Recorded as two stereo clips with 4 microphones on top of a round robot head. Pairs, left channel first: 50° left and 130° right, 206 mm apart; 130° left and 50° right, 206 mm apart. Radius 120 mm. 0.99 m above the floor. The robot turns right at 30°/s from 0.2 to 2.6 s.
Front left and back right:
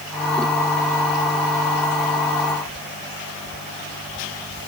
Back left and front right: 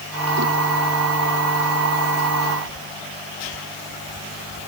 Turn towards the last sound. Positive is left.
No sound to turn to.